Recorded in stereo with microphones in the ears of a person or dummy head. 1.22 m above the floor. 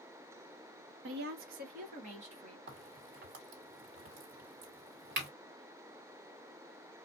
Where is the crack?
60° right (ahead or behind), 1.9 m.